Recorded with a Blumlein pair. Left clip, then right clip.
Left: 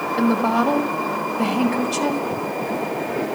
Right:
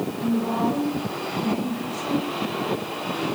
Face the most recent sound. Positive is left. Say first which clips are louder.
# left 7 dB
turn(degrees=45)